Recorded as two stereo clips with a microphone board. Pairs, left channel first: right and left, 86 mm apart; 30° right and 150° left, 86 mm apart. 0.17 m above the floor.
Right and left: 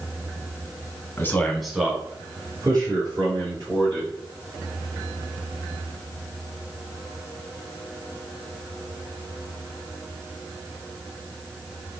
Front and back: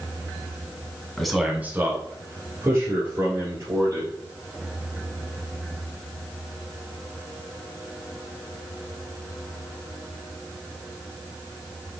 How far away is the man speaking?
About 1.3 m.